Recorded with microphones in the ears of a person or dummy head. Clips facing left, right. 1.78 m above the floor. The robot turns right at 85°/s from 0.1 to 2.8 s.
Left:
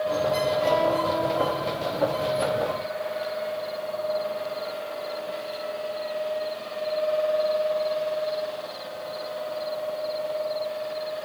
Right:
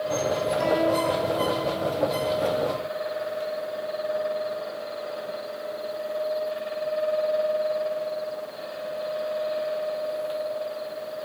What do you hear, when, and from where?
0.6 s a guitar: 115° right, 9.5 m; by 1.9 s straight ahead, 9.5 m